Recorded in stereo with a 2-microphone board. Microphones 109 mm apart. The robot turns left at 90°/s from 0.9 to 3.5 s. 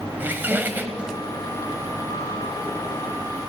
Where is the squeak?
20° right (ahead or behind), 1.1 m; by 1.1 s 5° right (ahead or behind), 1.1 m.